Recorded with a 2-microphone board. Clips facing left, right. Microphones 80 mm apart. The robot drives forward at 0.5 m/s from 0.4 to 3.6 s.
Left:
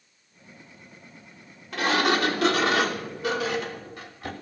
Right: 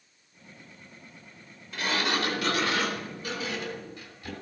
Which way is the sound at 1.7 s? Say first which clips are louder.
Left 6 dB; 75° left (ahead or behind).